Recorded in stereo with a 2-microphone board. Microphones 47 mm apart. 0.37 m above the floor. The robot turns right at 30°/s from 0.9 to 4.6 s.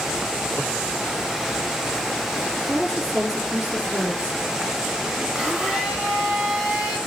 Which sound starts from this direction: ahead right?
A woman speaking, at 2.7 s.